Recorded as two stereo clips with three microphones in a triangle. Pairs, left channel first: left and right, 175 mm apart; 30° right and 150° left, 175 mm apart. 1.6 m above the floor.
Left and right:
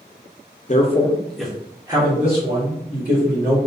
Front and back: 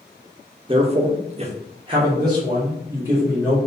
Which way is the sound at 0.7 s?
105° left.